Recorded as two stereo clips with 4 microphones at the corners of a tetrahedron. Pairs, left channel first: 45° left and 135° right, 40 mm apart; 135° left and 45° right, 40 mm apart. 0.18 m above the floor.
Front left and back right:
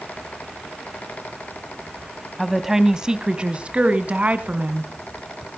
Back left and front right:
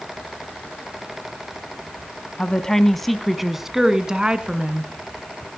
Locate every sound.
2.4 s a woman speaking: 150° left, 1.1 m; by 4.9 s 100° right, 1.8 m